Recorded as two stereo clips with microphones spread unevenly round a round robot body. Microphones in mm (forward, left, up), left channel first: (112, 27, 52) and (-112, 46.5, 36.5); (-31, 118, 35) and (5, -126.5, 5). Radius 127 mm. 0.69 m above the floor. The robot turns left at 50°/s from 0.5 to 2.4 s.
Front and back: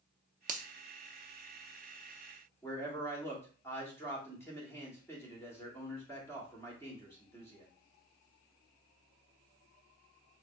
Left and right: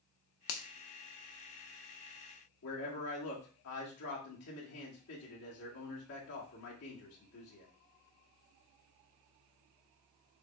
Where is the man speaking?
75° left, 1.8 m.